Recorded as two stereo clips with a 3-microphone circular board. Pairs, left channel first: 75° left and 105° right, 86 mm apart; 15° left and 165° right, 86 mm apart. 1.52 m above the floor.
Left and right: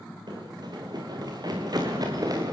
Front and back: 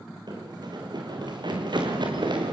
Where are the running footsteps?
135° right, 5 m; by 2.5 s 145° right, 6.5 m.